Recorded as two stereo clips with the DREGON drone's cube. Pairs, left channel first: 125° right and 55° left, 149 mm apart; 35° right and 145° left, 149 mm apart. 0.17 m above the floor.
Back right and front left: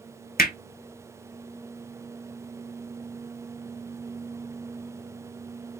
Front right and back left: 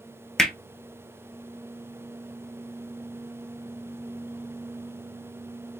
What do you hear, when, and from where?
0.4 s hammering: 120° right, 0.8 m